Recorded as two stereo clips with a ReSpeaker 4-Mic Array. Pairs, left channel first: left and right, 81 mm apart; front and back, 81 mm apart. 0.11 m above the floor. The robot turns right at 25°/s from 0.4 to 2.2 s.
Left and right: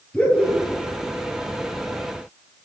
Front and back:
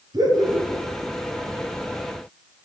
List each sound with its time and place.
0.1 s laughter: 165° left, 1.8 m; by 0.8 s 175° left, 1.8 m